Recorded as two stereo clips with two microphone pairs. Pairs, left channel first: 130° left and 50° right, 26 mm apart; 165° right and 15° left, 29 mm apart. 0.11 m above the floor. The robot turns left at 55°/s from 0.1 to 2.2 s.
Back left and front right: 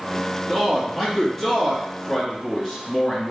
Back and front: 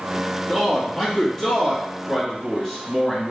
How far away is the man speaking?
About 1.8 m.